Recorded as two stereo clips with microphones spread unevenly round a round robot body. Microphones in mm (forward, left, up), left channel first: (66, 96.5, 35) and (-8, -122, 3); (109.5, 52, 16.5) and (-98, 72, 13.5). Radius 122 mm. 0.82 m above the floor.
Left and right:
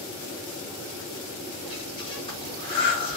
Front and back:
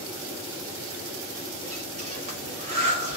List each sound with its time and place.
1.6 s breathing: 135° left, 1.1 m